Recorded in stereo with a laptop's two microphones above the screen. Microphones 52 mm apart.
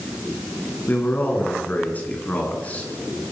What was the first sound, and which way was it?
A man speaking, 35° left (ahead or behind).